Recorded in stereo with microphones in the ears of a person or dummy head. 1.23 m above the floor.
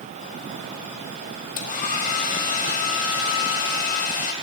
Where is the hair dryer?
45° left (ahead or behind), 1.9 m.